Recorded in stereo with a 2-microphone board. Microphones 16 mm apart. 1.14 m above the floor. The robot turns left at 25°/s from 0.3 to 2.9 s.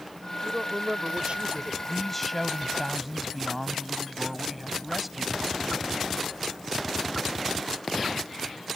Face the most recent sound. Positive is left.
turn(degrees=-5)  # may be behind; listen again after turning